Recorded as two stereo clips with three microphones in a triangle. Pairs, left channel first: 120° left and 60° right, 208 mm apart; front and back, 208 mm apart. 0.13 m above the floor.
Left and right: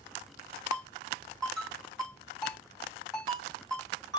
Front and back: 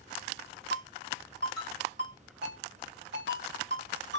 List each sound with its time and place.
0.7 s a ringtone: 150° right, 3 m